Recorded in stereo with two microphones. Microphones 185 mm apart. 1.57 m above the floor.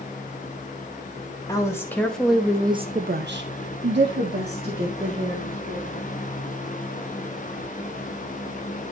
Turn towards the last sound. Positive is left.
turn(degrees=-50)  # may be behind; listen again after turning